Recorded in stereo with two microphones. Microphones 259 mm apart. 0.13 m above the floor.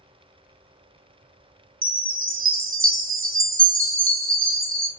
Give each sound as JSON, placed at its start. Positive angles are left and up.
{"t": 1.8, "sound": "a chime", "side_deg": -50, "distance_m": 0.6}